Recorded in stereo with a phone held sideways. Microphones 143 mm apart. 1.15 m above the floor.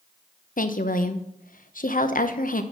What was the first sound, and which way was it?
A woman speaking, 65° left (ahead or behind).